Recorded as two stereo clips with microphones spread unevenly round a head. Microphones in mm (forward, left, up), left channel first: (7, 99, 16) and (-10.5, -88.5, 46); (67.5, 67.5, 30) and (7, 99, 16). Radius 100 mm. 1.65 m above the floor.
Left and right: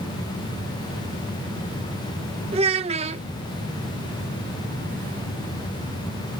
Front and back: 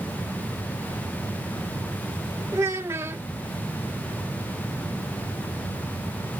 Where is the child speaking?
135° right.